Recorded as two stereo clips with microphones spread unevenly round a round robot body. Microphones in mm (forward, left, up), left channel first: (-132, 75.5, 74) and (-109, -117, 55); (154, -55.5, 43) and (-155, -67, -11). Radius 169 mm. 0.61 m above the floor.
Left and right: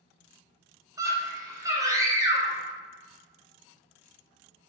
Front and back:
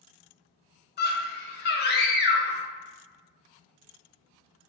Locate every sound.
1.0 s a scream: 45° right, 0.6 m